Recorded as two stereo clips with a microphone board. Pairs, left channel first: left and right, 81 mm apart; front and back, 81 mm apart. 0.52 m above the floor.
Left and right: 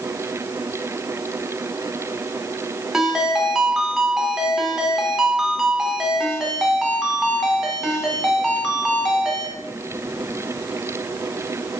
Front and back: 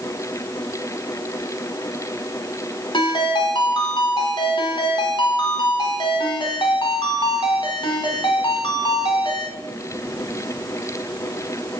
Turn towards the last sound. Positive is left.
turn(degrees=-5)